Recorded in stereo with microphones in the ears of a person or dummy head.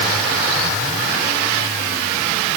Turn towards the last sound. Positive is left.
No sound to turn to.